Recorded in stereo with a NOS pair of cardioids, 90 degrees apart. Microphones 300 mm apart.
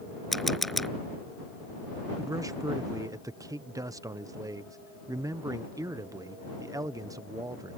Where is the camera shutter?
Straight ahead.